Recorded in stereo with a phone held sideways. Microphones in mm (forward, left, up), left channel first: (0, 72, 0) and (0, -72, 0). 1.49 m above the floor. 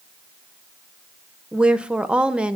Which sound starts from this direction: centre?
A woman speaking, at 1.5 s.